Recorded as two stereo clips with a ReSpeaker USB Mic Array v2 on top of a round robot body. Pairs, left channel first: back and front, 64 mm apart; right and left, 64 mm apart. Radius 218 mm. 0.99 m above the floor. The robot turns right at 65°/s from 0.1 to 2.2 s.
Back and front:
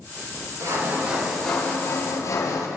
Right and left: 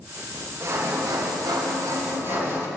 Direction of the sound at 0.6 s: 40° left.